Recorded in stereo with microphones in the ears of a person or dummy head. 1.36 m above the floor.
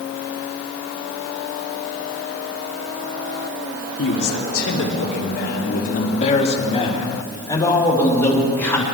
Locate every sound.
4.0 s a man speaking: 85° left, 3 m; by 8.8 s 10° left (ahead or behind), 5 m